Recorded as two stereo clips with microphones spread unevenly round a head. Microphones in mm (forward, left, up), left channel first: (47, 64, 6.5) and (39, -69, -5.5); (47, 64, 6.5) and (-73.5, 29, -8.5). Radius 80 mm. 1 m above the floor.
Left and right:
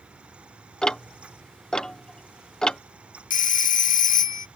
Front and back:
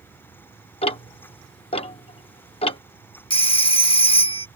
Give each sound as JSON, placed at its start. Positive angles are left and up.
{"t": 0.8, "sound": "ticking", "azimuth_deg": 5}
{"t": 3.3, "sound": "a phone ringing", "azimuth_deg": 65}